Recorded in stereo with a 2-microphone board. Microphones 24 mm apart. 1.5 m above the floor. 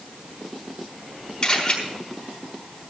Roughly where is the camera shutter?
Left.